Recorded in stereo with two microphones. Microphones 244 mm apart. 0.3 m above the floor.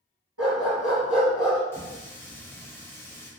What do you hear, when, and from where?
0.4 s a dog barking: 85° right, 1.6 m
1.7 s a running tap: 10° left (ahead or behind), 0.6 m